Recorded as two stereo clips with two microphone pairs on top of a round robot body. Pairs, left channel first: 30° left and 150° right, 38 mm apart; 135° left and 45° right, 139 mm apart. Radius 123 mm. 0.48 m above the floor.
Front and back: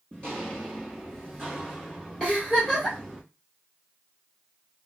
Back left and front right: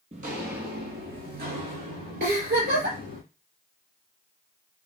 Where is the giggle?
45° right, 2.5 m.